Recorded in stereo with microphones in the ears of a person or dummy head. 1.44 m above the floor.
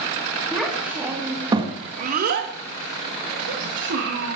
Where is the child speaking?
5° right (ahead or behind), 2 m; by 4.3 s 55° right (ahead or behind), 2 m.